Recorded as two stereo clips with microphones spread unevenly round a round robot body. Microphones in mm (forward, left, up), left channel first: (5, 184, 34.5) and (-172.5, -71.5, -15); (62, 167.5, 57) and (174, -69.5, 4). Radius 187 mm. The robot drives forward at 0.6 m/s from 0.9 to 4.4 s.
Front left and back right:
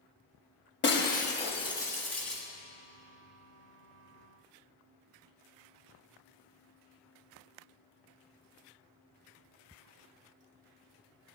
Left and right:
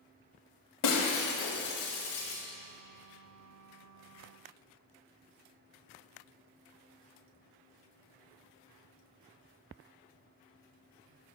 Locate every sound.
0.8 s breaking glass: 110° left, 1.0 m; by 2.4 s 145° left, 1.6 m